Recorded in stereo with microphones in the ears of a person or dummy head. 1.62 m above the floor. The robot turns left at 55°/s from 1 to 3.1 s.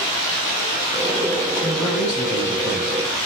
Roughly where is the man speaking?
Behind.